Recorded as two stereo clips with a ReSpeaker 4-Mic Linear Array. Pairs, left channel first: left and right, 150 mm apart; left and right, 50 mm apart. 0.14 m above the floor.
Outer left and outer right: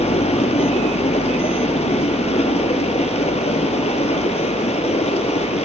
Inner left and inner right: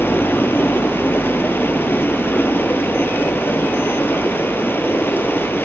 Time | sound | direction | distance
0.0 | running water | 45° left (ahead or behind) | 1.4 m